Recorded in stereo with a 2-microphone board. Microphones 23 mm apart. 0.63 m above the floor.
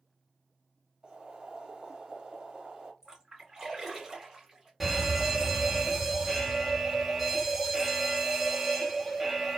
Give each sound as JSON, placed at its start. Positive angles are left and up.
{"t": 1.0, "sound": "boiling", "side_deg": -40, "distance_m": 1.5}
{"t": 3.0, "sound": "a splash", "side_deg": -25, "distance_m": 1.8}
{"t": 4.8, "sound": "a fire alarm", "side_deg": -10, "distance_m": 1.6}